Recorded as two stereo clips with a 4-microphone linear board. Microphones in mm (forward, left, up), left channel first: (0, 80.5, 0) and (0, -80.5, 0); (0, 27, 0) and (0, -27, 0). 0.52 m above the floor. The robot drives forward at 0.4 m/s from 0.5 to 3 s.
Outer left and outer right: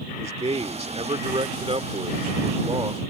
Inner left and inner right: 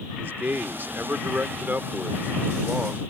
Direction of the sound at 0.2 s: 40° right (ahead or behind).